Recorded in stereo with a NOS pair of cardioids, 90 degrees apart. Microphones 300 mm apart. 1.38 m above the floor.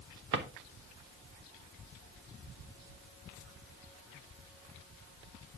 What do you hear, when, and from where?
0.3 s a drawer: 45° right, 1.4 m